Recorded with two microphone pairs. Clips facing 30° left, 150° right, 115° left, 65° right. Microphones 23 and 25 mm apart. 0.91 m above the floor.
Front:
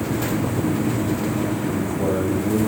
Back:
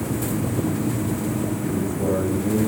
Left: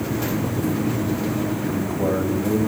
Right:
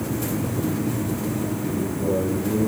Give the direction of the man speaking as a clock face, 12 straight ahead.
8 o'clock.